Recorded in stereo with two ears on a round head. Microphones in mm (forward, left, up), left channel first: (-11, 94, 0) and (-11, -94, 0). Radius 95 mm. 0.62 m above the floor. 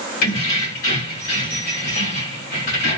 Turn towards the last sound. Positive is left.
turn(degrees=45)  # may be behind; listen again after turning